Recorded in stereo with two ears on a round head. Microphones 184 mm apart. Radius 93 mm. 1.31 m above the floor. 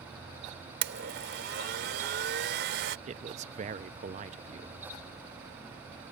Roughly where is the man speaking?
Right.